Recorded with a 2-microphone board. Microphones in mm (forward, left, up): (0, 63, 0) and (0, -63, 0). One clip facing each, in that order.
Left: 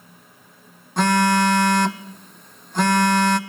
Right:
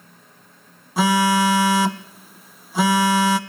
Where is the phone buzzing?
5° right (ahead or behind), 0.6 m.